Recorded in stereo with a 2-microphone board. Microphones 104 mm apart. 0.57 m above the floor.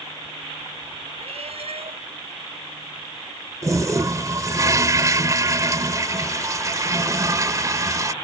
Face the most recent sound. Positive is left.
turn(degrees=-30)  # may be behind; listen again after turning